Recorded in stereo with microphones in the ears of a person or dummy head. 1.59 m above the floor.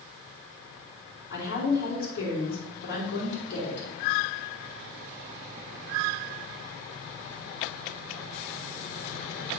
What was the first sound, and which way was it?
A woman speaking, 75° left (ahead or behind).